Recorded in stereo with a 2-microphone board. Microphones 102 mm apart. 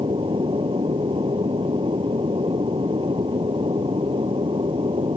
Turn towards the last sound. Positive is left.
turn(degrees=-65)  # may be behind; listen again after turning